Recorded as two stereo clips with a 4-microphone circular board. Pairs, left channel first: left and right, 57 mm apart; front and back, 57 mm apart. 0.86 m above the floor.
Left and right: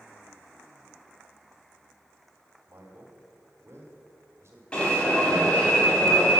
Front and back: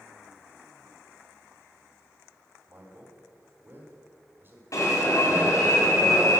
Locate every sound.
2.7 s a man speaking: 130° right, 2.5 m
4.7 s an alarm: 20° left, 4 m